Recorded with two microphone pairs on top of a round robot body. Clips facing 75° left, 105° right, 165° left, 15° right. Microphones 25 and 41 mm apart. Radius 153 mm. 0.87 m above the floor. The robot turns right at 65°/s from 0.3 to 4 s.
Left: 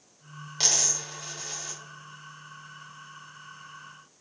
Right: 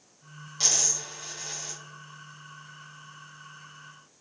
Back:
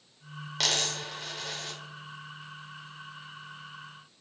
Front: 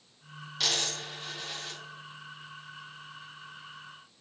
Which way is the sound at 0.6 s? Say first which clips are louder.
Left 1 dB, back 2 dB; 135° left.